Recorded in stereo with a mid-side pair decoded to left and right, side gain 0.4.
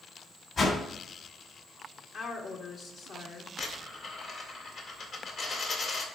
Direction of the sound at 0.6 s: 50° left.